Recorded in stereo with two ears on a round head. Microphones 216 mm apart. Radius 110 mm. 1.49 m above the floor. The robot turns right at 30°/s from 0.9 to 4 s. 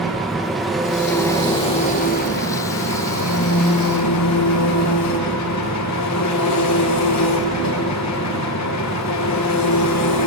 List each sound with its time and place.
0.0 s an engine running: straight ahead, 1.2 m; by 10.3 s 95° left, 1.2 m